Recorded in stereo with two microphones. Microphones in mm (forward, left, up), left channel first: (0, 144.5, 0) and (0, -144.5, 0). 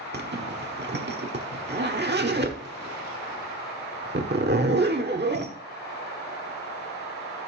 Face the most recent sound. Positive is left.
turn(degrees=-35)  # may be behind; listen again after turning